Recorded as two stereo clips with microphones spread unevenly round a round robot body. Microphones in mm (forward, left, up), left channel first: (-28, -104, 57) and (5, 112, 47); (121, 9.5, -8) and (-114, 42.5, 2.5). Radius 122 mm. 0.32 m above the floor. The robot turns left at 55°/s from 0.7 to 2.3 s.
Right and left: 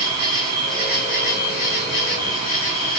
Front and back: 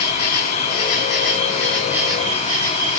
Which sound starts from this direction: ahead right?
An insect, at 0.0 s.